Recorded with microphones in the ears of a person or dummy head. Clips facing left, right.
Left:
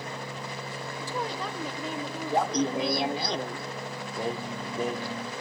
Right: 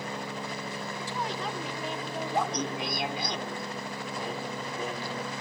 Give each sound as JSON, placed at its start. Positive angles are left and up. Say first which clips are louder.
{"t": 1.0, "sound": "a woman speaking", "louder": "left 3 dB", "side_deg": 85, "distance_m": 3.0}
{"t": 2.3, "sound": "laughter", "louder": "left 6 dB", "side_deg": 35, "distance_m": 0.8}
{"t": 4.2, "sound": "singing", "louder": "left 5 dB", "side_deg": 50, "distance_m": 1.0}